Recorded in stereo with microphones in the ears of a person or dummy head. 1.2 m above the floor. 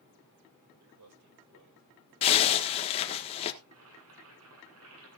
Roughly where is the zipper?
Left.